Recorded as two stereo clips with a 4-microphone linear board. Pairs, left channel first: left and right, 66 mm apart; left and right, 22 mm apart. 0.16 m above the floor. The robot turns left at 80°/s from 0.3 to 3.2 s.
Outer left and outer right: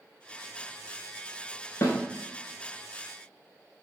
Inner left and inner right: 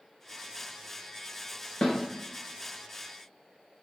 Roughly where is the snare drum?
Left.